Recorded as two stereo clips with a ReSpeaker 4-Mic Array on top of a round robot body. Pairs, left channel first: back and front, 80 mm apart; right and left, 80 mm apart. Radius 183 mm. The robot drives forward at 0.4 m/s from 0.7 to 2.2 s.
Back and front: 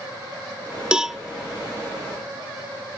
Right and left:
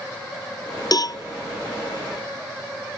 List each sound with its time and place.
0.9 s a cowbell: 75° right; by 1.2 s 85° right